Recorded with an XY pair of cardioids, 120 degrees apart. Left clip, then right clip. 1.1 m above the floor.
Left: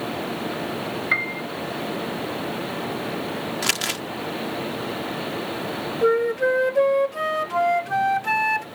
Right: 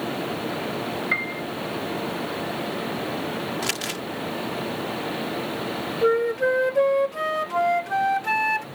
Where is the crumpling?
30° left.